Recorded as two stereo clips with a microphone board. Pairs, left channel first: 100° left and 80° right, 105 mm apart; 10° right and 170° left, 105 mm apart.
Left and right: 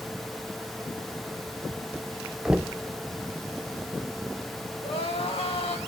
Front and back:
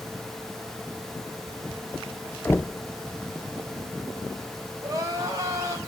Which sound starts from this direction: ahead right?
Knocking, at 2.5 s.